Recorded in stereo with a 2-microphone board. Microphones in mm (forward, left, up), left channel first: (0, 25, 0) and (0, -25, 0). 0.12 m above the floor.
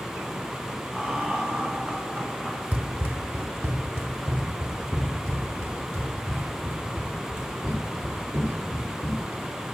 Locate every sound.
0.9 s laughter: 15° right (ahead or behind), 1.5 m
2.7 s running footsteps: 35° right (ahead or behind), 1.3 m; by 9.2 s 80° right, 8 m